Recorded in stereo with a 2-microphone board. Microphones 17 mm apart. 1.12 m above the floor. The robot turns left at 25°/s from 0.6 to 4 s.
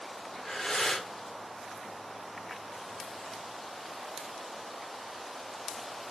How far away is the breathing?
About 1.7 m.